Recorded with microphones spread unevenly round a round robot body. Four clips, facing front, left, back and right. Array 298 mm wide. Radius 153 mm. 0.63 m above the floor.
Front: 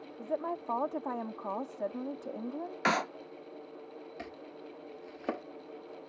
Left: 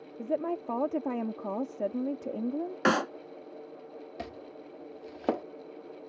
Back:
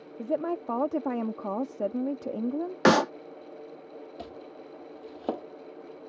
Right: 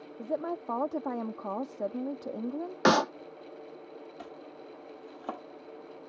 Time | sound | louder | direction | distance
0.2 | a woman speaking | left 2 dB, back 6 dB | 160° left | ?
2.9 | a clap | right 3 dB, back 10 dB | 170° right | ?
4.2 | chopping | left 3 dB, back 3 dB | 110° left | ?